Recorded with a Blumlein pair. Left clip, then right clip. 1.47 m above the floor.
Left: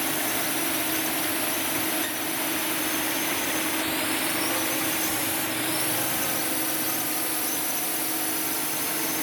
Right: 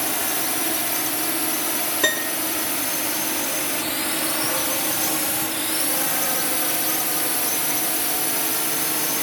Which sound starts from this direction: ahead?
A drone, at 0.0 s.